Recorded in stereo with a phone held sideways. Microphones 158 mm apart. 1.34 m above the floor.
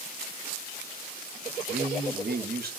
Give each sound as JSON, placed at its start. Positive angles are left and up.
{"t": 1.7, "sound": "a man speaking", "side_deg": -80, "distance_m": 0.8}